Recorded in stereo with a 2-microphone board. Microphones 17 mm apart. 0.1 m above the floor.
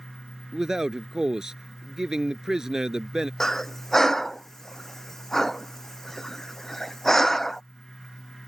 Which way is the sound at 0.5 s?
35° right (ahead or behind).